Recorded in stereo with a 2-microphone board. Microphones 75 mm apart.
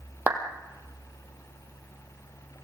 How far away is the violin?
No violin in this recording.